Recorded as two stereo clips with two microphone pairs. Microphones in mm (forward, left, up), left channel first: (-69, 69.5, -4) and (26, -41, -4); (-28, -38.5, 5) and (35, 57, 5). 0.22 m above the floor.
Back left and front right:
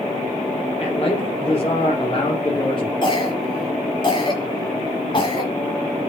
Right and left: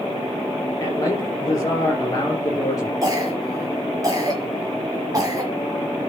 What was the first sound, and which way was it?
A man speaking, 175° left.